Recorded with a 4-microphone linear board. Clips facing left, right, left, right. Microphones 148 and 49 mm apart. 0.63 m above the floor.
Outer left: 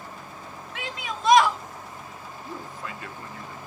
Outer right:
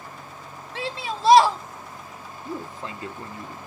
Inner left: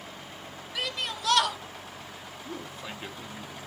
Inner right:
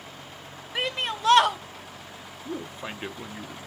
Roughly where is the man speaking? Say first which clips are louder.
Outer right 5 dB, inner right 5 dB; right.